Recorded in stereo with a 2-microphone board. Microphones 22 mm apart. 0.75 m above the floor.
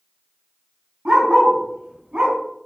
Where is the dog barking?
80° right, 1.9 m; by 2.4 s 65° right (ahead or behind), 1.6 m.